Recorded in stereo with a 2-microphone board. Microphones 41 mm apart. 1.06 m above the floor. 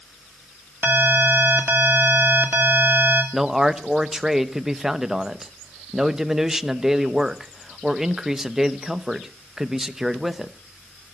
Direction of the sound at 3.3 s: 10° right (ahead or behind).